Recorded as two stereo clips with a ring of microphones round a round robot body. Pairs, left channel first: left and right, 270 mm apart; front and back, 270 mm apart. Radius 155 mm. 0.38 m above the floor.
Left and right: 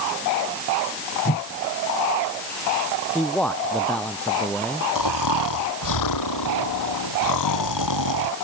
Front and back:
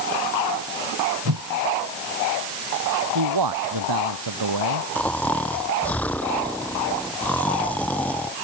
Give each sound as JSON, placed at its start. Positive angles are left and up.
{"t": 1.2, "sound": "a whoosh", "azimuth_deg": 155}
{"t": 3.1, "sound": "a man speaking", "azimuth_deg": 175}
{"t": 5.0, "sound": "snoring", "azimuth_deg": 85}